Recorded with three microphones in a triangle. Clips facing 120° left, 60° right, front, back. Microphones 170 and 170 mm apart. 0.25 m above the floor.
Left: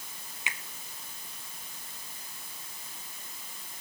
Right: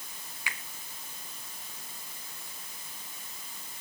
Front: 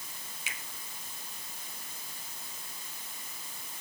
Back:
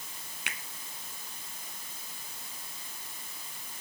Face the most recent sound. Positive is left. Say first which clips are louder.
# even, back 3 dB
turn(degrees=-175)